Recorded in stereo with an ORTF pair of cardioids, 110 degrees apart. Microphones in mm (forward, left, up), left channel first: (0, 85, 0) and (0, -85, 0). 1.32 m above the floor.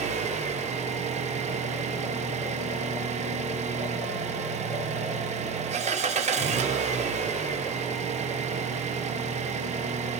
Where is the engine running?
40° right, 0.9 m.